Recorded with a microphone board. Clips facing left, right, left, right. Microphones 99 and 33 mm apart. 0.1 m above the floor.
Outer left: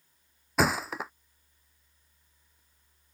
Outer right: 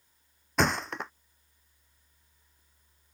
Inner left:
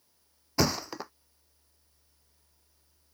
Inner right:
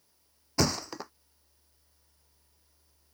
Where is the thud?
5° left (ahead or behind).